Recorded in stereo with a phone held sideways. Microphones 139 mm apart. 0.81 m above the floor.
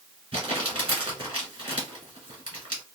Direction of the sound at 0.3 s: 40° right (ahead or behind).